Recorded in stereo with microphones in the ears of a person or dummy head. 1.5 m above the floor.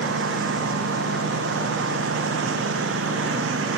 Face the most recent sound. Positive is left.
turn(degrees=-85)